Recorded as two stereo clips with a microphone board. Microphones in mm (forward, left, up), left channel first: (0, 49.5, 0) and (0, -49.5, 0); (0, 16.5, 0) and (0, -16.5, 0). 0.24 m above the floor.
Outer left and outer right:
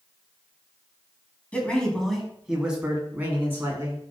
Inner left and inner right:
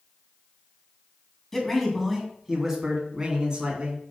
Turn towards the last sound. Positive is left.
turn(degrees=-25)  # may be behind; listen again after turning